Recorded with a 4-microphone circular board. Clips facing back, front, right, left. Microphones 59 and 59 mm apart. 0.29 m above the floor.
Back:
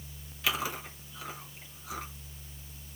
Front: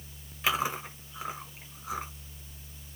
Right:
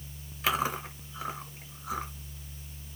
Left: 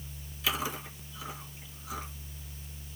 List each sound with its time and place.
0.4 s chewing: 65° right, 1.5 m